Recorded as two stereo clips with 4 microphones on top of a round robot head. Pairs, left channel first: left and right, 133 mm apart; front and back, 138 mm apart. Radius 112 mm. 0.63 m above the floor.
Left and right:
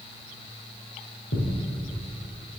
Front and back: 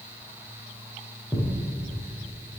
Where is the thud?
85° left, 4.5 m.